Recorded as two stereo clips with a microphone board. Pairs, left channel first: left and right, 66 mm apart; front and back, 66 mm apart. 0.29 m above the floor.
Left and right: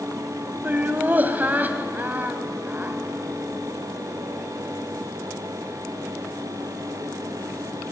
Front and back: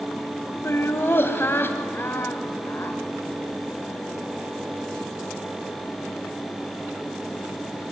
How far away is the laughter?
About 1.8 m.